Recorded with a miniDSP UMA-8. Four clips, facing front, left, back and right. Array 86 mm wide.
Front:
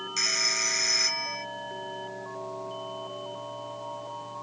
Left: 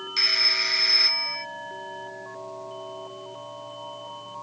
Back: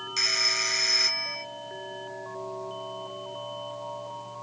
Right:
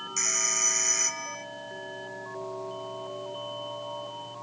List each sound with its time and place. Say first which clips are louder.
0.2 s a phone ringing: left 4 dB, back 2 dB; 95° left